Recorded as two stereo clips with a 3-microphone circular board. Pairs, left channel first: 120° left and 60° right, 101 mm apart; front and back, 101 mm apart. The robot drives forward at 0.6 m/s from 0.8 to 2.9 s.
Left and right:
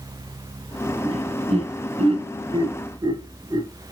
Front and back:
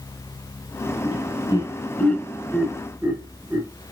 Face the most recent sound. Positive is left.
turn(degrees=-110)